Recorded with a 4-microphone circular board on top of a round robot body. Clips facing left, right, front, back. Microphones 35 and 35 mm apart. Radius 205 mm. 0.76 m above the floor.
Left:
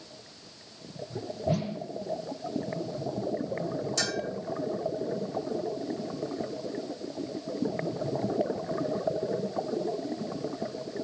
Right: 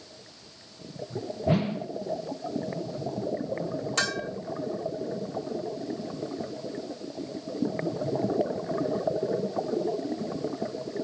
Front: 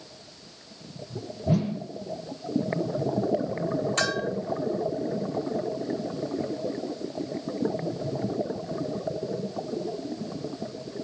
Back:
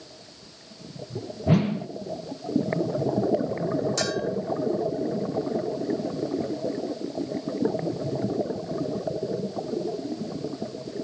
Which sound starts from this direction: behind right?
A whoosh, at 1.5 s.